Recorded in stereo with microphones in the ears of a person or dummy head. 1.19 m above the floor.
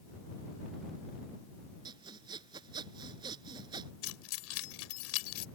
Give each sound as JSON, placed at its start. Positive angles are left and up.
{"t": 1.9, "sound": "sawing", "side_deg": -20}
{"t": 4.0, "sound": "keys jangling", "side_deg": 85}